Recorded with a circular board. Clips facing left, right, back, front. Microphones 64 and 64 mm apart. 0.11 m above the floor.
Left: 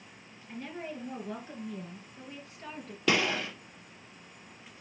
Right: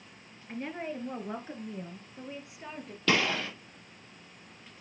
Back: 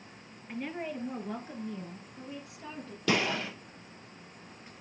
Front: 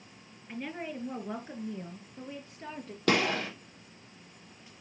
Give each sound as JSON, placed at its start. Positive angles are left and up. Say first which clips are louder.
{"t": 0.5, "sound": "a woman speaking", "louder": "right 3 dB, back 1 dB", "azimuth_deg": -90, "distance_m": 2.0}
{"t": 3.1, "sound": "a gunshot", "louder": "even, front 2 dB", "azimuth_deg": 15, "distance_m": 4.0}